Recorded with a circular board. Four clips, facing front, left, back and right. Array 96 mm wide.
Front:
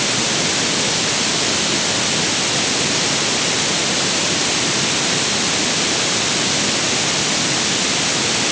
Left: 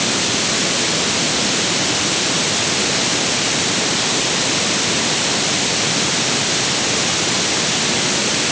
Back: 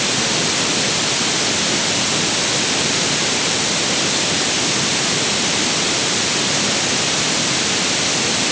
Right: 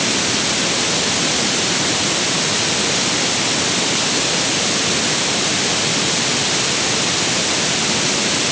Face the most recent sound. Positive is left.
No sound to turn to.